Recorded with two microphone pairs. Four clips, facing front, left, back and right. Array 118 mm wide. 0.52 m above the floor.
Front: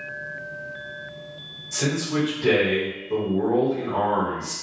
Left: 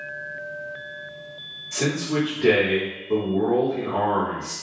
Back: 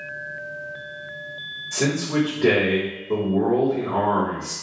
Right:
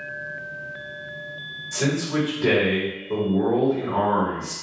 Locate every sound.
1.7 s a man speaking: 165° left, 1.3 m